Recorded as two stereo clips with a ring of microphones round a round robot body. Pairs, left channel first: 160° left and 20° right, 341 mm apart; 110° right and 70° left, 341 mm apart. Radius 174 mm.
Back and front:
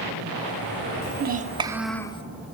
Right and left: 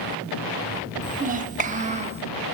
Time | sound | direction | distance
1.0 | a child speaking | 10° left | 0.8 m